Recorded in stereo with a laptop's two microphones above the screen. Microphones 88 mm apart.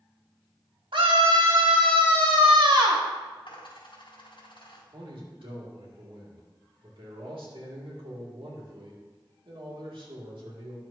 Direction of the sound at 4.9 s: 80° right.